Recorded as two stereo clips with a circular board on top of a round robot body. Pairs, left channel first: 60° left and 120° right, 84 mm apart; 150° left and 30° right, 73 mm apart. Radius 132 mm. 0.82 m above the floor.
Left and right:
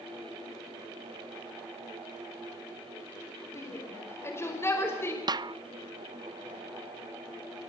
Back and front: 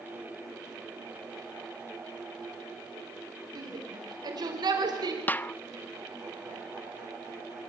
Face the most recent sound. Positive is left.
turn(degrees=-145)